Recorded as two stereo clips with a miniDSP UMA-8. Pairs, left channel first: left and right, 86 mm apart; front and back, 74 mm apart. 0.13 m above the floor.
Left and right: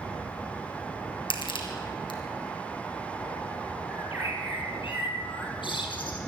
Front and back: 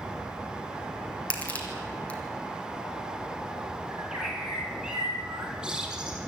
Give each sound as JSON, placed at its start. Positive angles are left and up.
{"t": 1.3, "sound": "crushing", "azimuth_deg": 75, "distance_m": 2.5}
{"t": 3.9, "sound": "a bird", "azimuth_deg": 100, "distance_m": 3.0}